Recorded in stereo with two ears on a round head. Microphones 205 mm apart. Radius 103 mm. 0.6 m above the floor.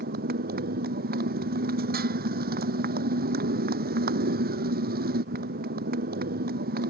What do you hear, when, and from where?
0.0 s a motorcycle: 40° right (ahead or behind)